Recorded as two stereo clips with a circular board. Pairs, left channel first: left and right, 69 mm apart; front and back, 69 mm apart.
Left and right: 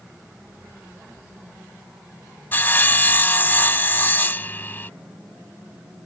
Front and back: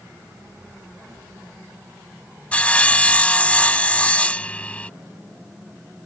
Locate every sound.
2.5 s sawing: 55° left